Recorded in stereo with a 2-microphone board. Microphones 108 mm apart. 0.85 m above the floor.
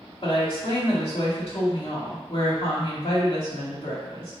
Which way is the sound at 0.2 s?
70° left (ahead or behind).